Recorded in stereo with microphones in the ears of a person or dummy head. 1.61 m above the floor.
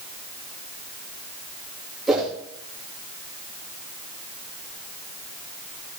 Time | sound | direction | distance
2.1 | a whoosh | 5° right (ahead or behind) | 2.5 m